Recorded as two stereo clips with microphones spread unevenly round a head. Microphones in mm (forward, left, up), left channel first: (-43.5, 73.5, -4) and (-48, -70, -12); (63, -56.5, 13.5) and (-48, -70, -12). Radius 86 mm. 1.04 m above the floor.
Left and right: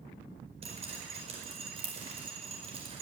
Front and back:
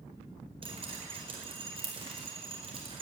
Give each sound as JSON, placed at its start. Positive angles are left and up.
{"t": 0.6, "sound": "dripping", "azimuth_deg": -135, "distance_m": 4.5}